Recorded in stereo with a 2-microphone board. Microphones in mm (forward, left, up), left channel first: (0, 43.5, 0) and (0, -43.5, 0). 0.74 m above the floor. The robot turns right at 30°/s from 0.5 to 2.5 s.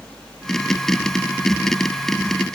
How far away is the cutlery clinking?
No cutlery clinking in this recording.